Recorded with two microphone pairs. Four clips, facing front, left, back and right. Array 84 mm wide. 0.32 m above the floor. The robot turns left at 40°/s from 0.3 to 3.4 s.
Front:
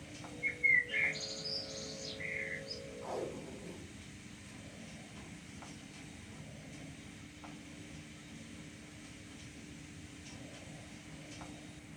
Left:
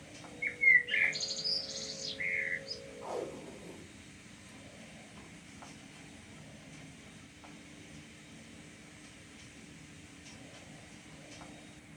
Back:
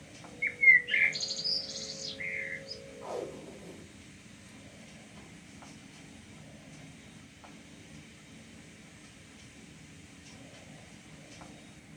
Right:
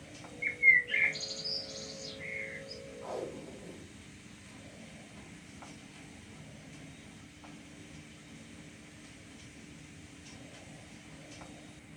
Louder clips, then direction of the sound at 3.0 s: Even, back 2 dB; 175° left.